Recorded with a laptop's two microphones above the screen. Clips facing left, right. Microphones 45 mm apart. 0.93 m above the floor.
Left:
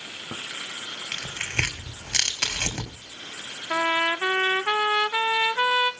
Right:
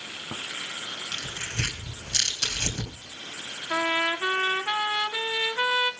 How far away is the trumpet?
About 0.9 m.